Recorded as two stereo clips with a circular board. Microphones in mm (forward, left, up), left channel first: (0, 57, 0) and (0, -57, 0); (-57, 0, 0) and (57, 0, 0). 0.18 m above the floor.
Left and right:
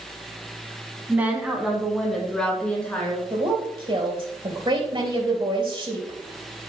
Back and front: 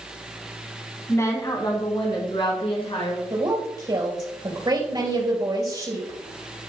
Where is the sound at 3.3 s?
45° right, 3 m.